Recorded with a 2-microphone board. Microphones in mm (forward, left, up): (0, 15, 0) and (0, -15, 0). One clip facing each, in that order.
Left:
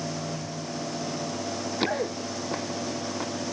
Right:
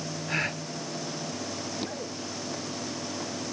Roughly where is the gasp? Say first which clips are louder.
Right 5 dB; right.